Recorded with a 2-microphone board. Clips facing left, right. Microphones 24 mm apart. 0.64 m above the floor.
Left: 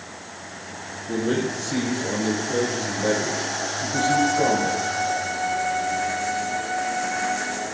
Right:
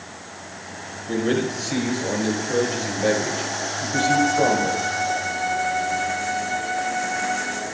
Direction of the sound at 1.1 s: 65° right (ahead or behind).